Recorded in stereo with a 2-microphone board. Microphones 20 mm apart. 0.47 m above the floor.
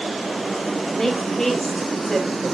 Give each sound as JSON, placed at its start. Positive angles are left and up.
{"t": 0.9, "sound": "a woman speaking", "side_deg": 30, "distance_m": 3.0}